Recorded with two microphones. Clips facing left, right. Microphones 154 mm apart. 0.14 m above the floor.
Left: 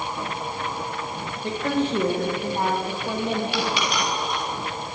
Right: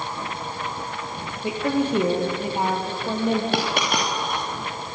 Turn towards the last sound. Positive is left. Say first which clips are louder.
# right 2 dB
turn(degrees=-50)  # may be behind; listen again after turning